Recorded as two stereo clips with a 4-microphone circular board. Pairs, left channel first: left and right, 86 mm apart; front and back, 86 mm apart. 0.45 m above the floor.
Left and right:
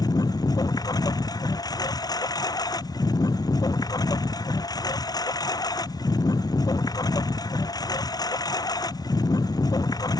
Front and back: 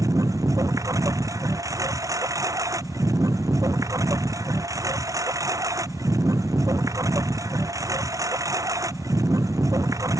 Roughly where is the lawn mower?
Behind left.